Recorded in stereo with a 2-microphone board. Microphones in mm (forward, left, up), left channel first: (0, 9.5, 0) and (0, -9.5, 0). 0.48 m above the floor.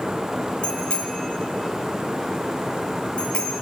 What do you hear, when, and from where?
0.6 s a bicycle bell: 85° left, 8.5 m